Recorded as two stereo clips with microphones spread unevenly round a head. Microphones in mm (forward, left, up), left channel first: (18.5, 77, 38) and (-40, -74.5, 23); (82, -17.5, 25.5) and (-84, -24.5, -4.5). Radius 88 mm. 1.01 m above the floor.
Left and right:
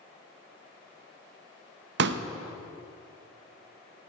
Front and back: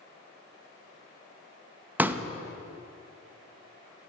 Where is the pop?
100° right, 0.8 m.